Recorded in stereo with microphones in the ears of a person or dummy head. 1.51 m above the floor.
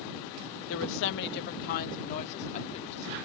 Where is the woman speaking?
75° left (ahead or behind); by 3.1 s 35° left (ahead or behind).